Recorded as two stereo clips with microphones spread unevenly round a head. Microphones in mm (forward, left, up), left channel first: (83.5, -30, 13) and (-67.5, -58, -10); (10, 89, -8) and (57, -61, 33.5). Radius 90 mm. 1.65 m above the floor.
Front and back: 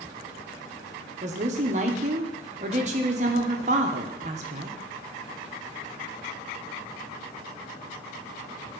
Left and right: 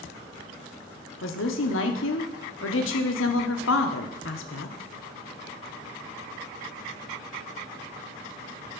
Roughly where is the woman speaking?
Behind left.